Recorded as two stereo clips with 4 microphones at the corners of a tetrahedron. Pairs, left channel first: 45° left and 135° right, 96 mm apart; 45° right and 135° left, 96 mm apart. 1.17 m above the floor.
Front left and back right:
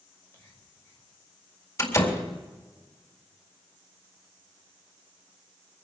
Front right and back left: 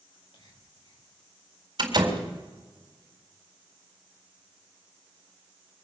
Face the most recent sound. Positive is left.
turn(degrees=100)